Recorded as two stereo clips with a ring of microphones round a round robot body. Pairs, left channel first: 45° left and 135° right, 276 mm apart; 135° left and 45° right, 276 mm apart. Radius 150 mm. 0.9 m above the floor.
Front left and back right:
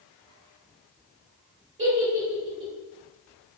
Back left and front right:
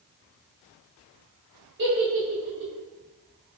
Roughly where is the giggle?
Right.